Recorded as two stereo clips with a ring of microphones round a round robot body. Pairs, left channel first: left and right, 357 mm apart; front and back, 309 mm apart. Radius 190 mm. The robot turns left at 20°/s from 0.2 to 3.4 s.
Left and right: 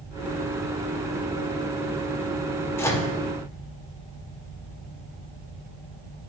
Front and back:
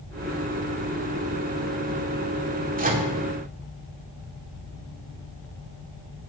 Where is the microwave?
165° left, 1.2 m; by 3.1 s 160° left, 1.2 m.